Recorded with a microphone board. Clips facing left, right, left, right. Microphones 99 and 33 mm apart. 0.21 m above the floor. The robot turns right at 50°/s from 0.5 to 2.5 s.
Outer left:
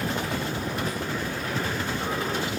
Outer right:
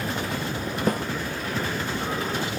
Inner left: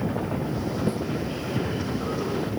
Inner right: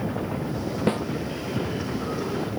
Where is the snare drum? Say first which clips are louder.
Outer right 6 dB, inner right 5 dB; 55° right (ahead or behind); by 1.0 s 50° right (ahead or behind).